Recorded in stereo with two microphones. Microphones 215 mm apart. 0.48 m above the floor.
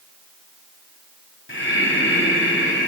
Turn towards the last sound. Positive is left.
turn(degrees=60)  # may be behind; listen again after turning